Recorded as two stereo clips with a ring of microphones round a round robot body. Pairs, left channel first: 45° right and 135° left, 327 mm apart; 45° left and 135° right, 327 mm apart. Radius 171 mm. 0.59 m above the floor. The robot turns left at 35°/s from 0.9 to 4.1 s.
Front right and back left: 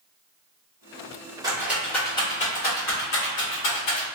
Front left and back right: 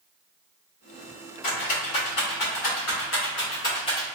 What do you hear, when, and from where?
1.4 s a rattle: 60° left, 1.2 m; by 4.0 s 35° right, 1.2 m